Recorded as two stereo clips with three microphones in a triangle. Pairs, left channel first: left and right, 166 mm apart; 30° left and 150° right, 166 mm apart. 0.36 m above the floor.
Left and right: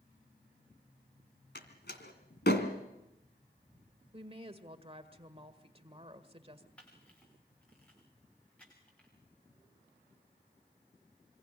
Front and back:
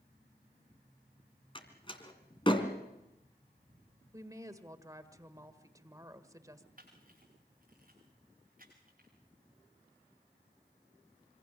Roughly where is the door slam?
Left.